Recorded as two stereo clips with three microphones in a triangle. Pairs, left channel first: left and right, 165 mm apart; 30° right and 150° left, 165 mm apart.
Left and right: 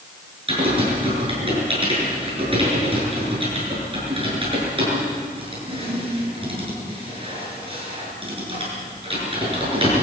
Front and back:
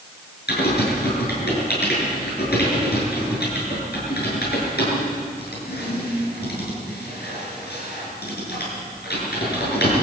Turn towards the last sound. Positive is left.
turn(degrees=-35)